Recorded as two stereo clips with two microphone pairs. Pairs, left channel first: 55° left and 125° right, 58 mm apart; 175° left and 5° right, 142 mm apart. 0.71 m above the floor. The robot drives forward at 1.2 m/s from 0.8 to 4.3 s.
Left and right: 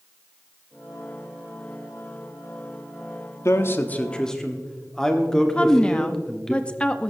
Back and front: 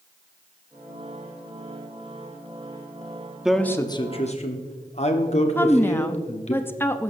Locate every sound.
3.5 s a man speaking: 75° left, 1.0 m; by 6.5 s 135° left, 1.3 m
5.5 s a woman speaking: 105° left, 0.5 m